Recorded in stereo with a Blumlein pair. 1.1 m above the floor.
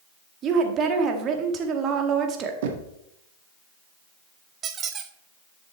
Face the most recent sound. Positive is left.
turn(degrees=-25)